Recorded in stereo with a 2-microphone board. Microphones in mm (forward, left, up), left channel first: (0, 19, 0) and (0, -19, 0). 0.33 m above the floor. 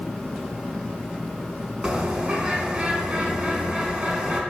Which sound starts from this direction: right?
A bird, at 1.8 s.